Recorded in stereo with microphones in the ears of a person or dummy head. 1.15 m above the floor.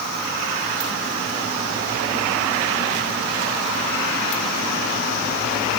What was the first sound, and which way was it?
Only background noise.